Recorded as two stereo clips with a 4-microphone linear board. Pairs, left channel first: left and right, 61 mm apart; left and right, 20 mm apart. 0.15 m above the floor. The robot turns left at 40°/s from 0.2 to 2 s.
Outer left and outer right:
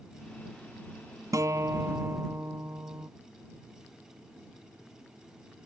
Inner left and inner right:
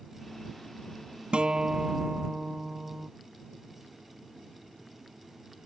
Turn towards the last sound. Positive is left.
turn(degrees=-40)  # may be behind; listen again after turning